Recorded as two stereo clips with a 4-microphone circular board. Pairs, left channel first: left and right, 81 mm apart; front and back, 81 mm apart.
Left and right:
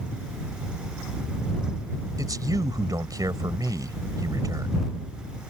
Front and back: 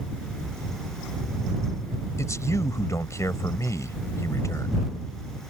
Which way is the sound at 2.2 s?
50° right.